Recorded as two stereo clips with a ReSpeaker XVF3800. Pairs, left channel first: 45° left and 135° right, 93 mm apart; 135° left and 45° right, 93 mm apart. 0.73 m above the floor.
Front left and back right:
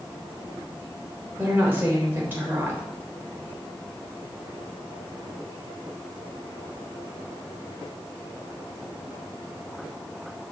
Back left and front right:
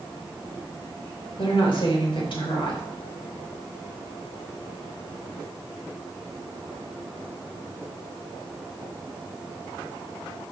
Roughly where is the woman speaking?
Behind.